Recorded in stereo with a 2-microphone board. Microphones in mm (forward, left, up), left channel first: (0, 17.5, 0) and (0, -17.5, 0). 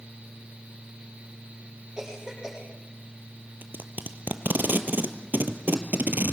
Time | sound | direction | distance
2.0 | a cough | 15° right (ahead or behind) | 6 m
3.6 | tape being pulled | 65° right (ahead or behind) | 1.6 m